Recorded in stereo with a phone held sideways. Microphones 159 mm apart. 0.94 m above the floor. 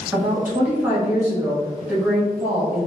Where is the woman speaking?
10° right (ahead or behind), 1.3 m.